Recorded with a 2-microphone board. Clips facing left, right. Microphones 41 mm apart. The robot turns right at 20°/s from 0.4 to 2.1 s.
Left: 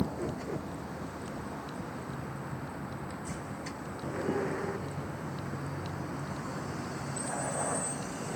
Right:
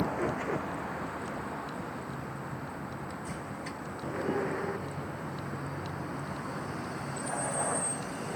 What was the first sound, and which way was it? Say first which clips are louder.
A vehicle: right 4 dB; 45° right.